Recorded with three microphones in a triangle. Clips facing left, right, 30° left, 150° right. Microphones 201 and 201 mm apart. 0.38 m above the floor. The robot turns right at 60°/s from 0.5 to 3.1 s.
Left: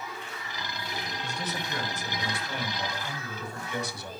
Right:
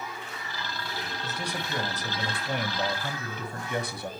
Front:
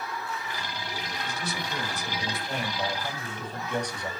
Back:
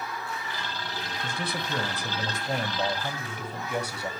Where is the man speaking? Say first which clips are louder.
Right 1 dB, back 3 dB; straight behind, 2.5 m; by 4.1 s 70° right, 2.5 m.